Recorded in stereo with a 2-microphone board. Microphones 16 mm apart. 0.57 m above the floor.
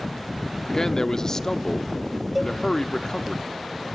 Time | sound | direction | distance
0.7 | a man speaking | 35° left (ahead or behind) | 0.8 m
2.4 | a cowbell | 15° right (ahead or behind) | 0.7 m